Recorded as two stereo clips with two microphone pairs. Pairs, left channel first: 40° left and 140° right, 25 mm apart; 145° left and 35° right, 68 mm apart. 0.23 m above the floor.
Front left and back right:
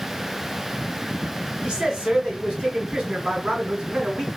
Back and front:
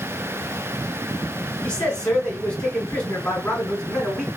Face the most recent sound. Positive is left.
turn(degrees=-145)